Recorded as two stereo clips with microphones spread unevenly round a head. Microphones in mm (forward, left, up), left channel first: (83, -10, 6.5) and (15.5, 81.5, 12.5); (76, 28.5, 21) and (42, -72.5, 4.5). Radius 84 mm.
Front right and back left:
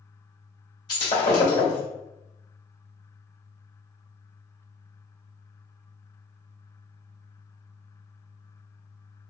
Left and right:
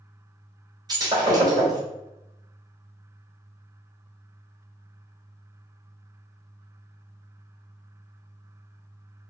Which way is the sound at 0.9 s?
70° right.